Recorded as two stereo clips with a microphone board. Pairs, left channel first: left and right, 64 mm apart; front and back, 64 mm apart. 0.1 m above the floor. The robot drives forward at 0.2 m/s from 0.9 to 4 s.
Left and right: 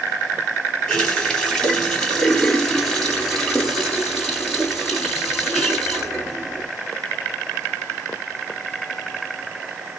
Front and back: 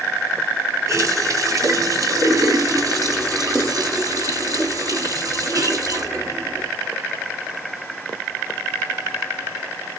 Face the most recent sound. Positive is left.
turn(degrees=170)